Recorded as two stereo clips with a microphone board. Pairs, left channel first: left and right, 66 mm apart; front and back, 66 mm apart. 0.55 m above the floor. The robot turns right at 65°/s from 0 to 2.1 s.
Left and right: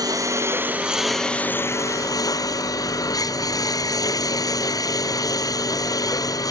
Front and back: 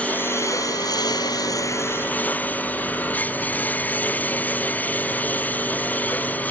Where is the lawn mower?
70° right; by 6.5 s 65° left.